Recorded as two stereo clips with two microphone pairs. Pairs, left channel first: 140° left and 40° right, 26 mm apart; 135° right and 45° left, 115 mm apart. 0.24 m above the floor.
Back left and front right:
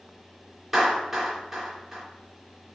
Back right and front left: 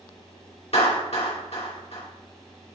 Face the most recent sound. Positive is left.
turn(degrees=-125)